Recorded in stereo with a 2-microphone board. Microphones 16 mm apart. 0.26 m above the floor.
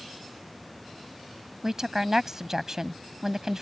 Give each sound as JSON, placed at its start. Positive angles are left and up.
{"t": 1.6, "sound": "a woman speaking", "side_deg": -30}